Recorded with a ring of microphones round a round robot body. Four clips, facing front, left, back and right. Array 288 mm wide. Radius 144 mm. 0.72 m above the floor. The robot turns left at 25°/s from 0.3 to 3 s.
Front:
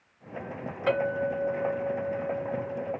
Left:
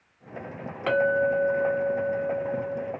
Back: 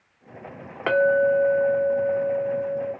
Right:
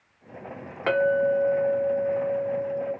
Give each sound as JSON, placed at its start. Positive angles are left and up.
{"t": 0.9, "sound": "a clink", "azimuth_deg": -165, "distance_m": 1.3}